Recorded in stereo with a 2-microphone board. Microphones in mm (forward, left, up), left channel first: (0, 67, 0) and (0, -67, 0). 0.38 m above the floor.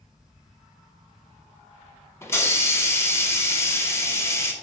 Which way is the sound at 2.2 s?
20° left (ahead or behind).